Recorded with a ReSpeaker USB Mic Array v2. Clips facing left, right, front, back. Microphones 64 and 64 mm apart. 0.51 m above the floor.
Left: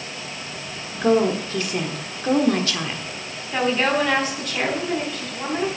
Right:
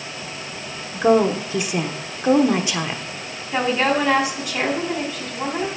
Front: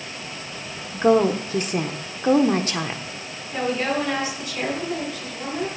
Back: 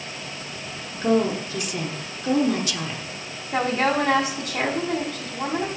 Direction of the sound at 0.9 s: 25° right.